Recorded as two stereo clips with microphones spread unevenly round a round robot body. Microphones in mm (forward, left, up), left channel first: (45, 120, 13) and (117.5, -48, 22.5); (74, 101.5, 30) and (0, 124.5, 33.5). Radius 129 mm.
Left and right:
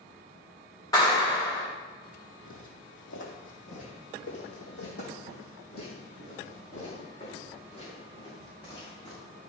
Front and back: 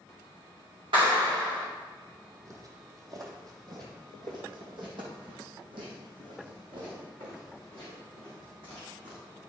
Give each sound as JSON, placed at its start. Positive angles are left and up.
{"t": 0.9, "sound": "a clap", "azimuth_deg": -170, "distance_m": 2.5}
{"t": 2.5, "sound": "footsteps", "azimuth_deg": 120, "distance_m": 2.0}